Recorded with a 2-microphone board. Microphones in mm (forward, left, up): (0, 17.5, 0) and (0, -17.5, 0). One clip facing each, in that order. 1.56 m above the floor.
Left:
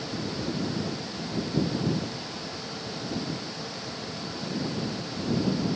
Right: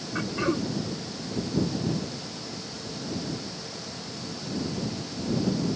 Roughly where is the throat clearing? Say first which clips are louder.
Right 6 dB; right.